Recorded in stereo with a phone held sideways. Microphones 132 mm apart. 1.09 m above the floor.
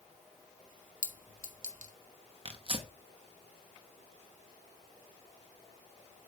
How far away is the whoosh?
No whoosh in this recording.